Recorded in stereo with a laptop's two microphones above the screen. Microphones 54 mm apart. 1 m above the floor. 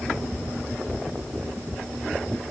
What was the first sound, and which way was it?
Only background noise.